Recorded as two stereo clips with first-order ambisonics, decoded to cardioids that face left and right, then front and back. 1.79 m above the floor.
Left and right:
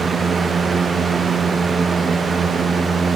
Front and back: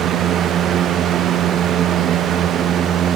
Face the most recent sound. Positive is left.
No sound to turn to.